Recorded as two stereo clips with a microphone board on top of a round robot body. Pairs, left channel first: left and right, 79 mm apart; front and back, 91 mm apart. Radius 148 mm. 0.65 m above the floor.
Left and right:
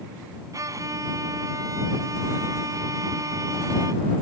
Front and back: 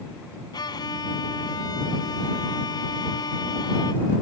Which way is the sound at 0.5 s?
45° right.